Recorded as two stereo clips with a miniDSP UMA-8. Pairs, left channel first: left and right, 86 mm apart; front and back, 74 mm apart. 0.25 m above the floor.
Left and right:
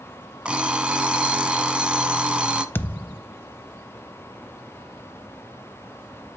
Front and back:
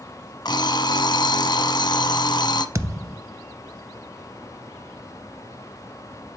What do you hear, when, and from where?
0.5 s an alarm clock: 10° right, 0.7 m
2.8 s a thud: 150° left, 0.5 m